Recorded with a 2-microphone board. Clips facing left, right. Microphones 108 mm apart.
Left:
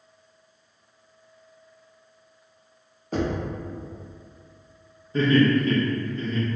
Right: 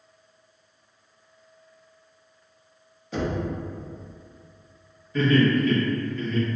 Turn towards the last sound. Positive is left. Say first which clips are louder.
# left 1 dB
turn(degrees=35)  # may be behind; listen again after turning